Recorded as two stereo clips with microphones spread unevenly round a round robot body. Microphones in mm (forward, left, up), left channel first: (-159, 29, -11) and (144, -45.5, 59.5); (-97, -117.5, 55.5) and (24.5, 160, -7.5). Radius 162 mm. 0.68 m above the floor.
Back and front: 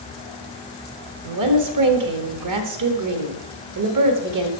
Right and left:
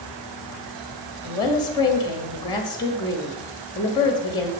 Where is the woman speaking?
30° right, 1.4 m.